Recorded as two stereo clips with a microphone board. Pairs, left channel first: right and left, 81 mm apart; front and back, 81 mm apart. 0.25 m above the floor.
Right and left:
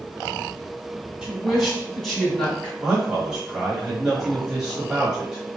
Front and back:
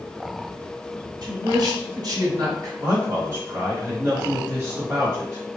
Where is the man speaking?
165° left, 1.0 m.